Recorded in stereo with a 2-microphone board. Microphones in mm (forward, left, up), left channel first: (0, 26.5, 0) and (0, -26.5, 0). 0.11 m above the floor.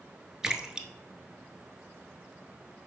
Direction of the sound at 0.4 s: 10° right (ahead or behind).